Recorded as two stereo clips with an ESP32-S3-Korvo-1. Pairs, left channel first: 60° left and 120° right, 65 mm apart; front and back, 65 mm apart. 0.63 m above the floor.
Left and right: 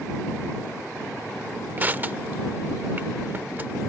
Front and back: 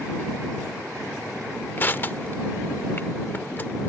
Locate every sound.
1.8 s crushing: 60° right